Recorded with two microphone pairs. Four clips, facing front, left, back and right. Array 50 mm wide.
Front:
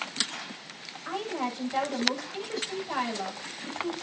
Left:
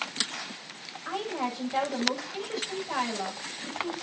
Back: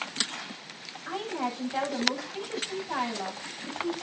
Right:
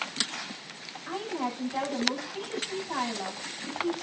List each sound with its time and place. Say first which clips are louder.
1.1 s a woman speaking: left 1 dB, even; 40° left, 8.5 m